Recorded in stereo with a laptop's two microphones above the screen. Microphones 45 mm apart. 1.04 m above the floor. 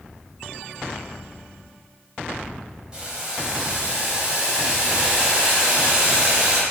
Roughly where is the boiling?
Right.